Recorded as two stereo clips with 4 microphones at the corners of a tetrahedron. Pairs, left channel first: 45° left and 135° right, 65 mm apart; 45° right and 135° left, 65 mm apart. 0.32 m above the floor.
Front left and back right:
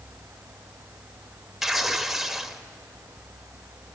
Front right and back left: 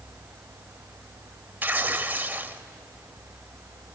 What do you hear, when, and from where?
1.6 s tearing paper: 140° left, 0.8 m